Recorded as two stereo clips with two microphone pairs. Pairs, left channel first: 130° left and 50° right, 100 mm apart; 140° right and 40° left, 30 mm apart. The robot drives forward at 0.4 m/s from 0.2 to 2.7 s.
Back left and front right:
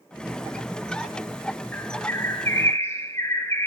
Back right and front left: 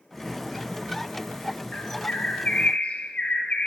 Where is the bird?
170° right, 1.1 m.